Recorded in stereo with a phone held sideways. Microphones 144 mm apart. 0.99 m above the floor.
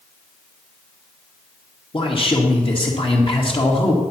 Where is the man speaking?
40° left (ahead or behind), 1.8 m.